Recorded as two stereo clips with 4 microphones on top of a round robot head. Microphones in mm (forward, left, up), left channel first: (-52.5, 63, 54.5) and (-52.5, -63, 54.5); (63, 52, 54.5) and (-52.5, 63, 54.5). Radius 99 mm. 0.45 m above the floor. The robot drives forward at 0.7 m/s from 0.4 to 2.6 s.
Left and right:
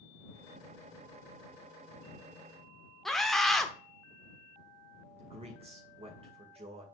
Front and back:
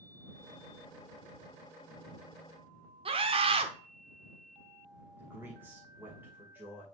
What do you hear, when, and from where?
3.0 s a scream: straight behind, 1.0 m
5.2 s a man speaking: 115° right, 2.5 m